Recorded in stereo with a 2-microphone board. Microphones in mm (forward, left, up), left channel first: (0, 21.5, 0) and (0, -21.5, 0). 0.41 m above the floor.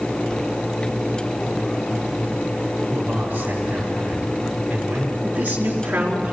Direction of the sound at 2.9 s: 40° right (ahead or behind).